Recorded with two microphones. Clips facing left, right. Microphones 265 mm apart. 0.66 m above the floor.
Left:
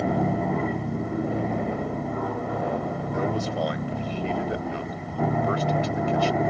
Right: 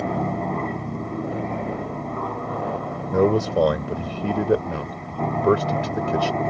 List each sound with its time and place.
0.0 s an aircraft: 5° left (ahead or behind)
3.1 s a man speaking: 70° right (ahead or behind)